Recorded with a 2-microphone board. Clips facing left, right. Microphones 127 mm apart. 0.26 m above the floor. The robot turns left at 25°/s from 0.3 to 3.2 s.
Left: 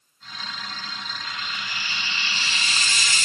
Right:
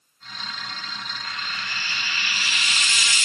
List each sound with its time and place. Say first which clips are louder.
1.2 s frying: right 1 dB; 170° left, 0.8 m; by 3.3 s 120° left, 0.8 m